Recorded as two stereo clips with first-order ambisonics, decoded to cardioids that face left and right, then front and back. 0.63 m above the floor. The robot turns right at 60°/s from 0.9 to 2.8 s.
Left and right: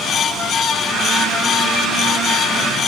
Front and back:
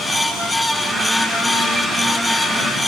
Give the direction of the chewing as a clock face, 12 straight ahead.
No chewing in this recording.